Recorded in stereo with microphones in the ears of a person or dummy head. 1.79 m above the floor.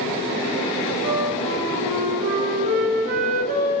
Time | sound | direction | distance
1.0 | a flute | 65° right (ahead or behind) | 7 m